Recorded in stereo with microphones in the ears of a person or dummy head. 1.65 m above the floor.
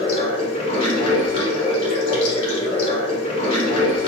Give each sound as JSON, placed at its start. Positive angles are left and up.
{"t": 0.0, "sound": "running water", "side_deg": 35, "distance_m": 1.2}